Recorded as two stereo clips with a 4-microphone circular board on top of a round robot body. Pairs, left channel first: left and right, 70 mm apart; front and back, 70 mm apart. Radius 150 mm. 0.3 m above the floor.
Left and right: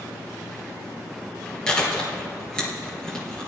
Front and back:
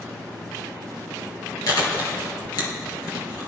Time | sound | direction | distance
1.7 | chewing | 10° left | 2.5 m